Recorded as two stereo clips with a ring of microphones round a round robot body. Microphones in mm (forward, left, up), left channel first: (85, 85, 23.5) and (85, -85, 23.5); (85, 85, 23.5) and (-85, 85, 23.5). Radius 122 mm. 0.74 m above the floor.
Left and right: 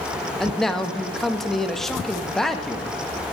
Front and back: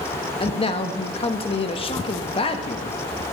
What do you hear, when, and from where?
0.4 s a man speaking: 5° left, 1.2 m